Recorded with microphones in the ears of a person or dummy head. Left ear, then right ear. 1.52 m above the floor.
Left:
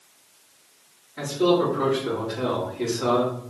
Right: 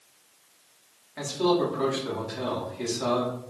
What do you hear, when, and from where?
1.2 s a man speaking: 85° right, 3 m